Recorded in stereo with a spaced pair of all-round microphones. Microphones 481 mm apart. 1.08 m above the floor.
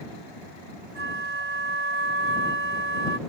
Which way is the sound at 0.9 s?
25° right (ahead or behind).